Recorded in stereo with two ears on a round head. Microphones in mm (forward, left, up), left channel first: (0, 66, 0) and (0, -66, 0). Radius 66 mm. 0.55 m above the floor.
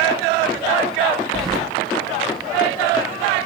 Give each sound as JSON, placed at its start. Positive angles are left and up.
{"t": 1.3, "sound": "keys jangling", "side_deg": 5, "distance_m": 0.7}